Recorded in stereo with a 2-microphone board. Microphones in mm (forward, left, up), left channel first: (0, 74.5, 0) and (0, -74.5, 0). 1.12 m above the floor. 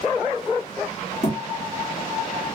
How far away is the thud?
About 1.2 m.